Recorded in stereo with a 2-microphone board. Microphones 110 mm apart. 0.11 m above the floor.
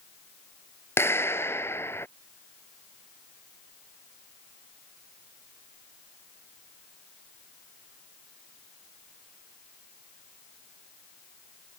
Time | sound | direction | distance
1.0 | a clap | 25° left (ahead or behind) | ?